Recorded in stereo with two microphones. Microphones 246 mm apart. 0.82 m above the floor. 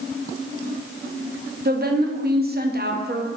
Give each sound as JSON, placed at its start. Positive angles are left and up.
{"t": 1.6, "sound": "a woman speaking", "side_deg": -40, "distance_m": 0.7}